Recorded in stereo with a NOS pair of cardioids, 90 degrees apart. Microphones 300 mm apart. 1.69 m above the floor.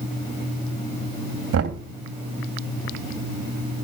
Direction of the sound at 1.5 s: 50° right.